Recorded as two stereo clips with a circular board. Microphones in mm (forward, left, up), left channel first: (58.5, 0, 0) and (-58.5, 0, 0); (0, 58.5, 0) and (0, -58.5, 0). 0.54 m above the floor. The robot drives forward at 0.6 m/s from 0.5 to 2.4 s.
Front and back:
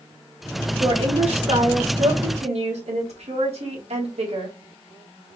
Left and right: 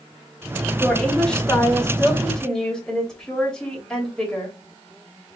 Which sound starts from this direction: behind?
A woman speaking, at 0.8 s.